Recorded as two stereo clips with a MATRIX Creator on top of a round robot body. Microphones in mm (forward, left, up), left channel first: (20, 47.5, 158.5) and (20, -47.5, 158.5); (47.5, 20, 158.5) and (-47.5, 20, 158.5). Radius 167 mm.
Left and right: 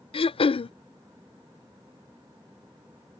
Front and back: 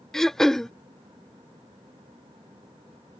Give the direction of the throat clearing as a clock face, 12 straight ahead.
9 o'clock.